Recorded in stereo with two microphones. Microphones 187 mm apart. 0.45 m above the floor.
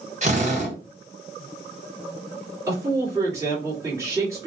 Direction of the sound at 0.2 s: 40° right (ahead or behind).